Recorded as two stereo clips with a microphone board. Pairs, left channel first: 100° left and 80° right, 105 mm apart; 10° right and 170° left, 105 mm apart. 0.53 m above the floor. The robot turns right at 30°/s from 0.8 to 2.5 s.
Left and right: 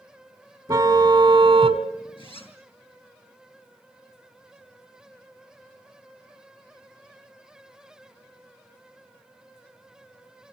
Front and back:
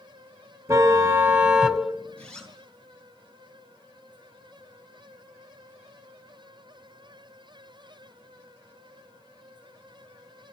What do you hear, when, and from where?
0.7 s a car horn: 125° right, 2 m; by 1.8 s 95° right, 2 m
2.2 s a zipper: 65° left, 6 m; by 2.6 s 75° left, 6 m